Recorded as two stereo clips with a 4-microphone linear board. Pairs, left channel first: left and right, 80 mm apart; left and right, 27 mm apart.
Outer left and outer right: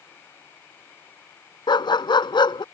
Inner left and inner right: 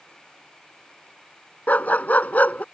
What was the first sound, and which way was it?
A dog barking, 80° left.